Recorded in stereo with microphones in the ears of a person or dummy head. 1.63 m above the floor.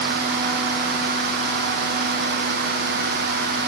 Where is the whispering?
I don't hear whispering.